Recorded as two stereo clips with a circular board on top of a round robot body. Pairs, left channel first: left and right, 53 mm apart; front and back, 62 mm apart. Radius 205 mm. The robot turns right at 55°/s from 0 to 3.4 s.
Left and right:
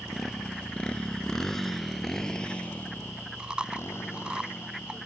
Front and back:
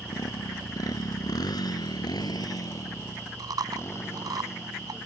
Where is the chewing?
165° right.